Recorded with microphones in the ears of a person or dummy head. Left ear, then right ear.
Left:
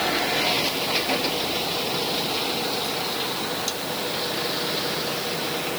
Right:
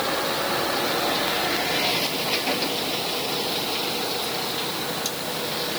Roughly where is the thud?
I don't hear a thud.